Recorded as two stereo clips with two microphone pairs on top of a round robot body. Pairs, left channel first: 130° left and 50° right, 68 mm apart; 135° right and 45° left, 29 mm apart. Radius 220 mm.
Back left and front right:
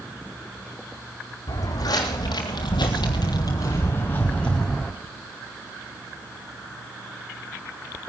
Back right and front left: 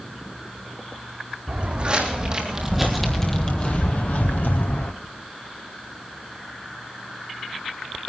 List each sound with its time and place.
1.5 s footsteps: 100° left, 1.3 m; by 4.9 s 145° right, 1.2 m